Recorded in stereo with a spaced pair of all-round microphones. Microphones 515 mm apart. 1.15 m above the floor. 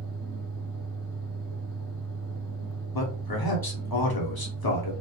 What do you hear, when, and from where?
0.0 s a fan: 45° right (ahead or behind), 1.1 m
2.9 s a man speaking: 45° left (ahead or behind), 0.9 m